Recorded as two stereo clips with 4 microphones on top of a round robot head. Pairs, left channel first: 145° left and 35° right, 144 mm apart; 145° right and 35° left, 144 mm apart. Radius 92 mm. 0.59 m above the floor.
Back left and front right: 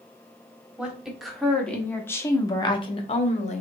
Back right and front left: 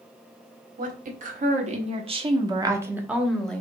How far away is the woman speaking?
About 1.6 m.